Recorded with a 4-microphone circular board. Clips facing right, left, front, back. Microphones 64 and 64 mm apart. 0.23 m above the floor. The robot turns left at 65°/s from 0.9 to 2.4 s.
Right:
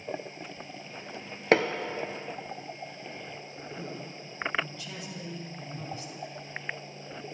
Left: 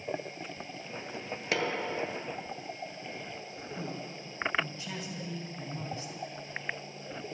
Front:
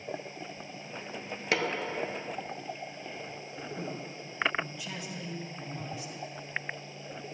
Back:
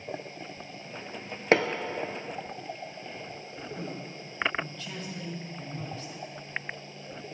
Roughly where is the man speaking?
Ahead left.